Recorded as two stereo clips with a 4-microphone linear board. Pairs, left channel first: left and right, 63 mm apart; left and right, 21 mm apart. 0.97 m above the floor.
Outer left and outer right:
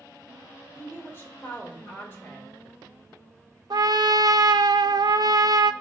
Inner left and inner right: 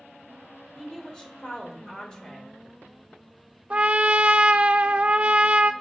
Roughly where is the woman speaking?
Left.